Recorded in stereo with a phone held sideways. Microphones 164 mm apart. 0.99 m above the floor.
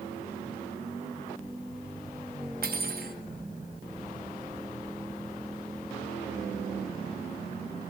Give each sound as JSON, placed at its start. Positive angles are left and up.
{"t": 2.6, "sound": "cutlery clinking", "side_deg": -65, "distance_m": 0.8}